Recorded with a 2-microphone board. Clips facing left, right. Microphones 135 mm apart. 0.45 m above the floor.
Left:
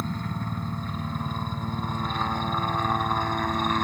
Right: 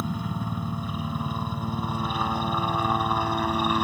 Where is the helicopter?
10° right (ahead or behind).